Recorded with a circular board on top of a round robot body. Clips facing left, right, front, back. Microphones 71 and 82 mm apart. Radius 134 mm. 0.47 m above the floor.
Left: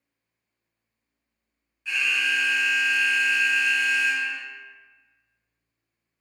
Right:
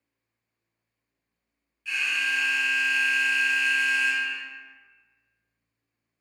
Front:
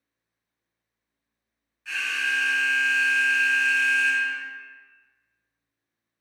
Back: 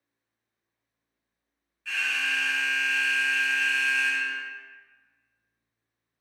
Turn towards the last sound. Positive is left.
turn(degrees=60)